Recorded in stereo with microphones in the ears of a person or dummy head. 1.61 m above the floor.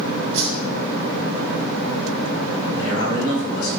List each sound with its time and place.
0.3 s a whoosh: 60° right (ahead or behind), 2.0 m
2.8 s a man speaking: 65° left (ahead or behind), 3.5 m